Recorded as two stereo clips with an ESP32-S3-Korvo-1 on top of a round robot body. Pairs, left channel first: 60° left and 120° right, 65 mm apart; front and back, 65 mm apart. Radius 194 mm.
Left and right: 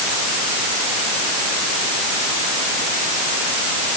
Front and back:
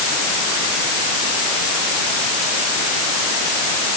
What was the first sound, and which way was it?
Only background noise.